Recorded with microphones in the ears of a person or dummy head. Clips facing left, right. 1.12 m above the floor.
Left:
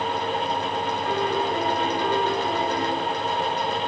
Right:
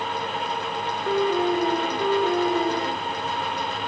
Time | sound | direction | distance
1.1 | a piano | 20° right (ahead or behind) | 1.9 m